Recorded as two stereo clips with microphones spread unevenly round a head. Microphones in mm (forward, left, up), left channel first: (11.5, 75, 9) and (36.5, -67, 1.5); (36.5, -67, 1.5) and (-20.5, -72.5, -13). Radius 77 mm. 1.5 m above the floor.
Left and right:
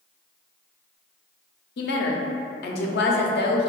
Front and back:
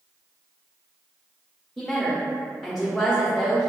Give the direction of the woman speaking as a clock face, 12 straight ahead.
9 o'clock.